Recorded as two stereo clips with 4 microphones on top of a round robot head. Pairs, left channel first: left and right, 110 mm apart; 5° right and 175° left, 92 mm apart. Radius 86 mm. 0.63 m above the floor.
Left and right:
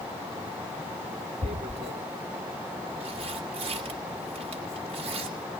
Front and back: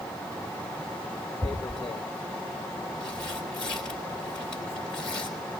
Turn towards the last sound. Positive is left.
turn(degrees=-85)